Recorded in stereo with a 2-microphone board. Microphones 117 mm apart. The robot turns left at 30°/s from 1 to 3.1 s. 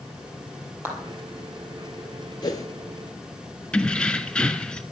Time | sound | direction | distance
0.8 | a clap | 20° right (ahead or behind) | 3.5 m
2.4 | a whoosh | 35° left (ahead or behind) | 1.5 m
3.7 | keys jangling | 10° left (ahead or behind) | 1.0 m